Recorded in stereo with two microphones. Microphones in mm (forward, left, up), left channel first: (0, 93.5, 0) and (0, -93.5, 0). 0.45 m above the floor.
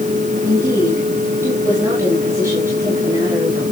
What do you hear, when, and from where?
0.4 s a woman speaking: 10° right (ahead or behind), 7 m; by 3.6 s 15° right (ahead or behind), 8.5 m